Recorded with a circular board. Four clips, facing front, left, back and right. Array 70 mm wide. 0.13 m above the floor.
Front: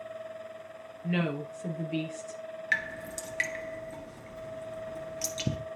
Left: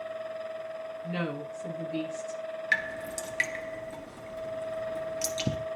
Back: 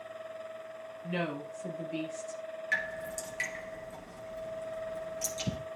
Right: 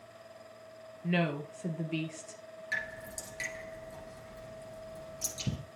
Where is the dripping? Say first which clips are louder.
Left 7 dB, front 2 dB; 65° left, 1.7 m.